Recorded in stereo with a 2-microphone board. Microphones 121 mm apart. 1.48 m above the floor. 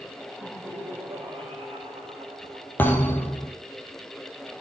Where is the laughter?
40° right (ahead or behind), 4 m; by 2.7 s 55° right (ahead or behind), 4.5 m.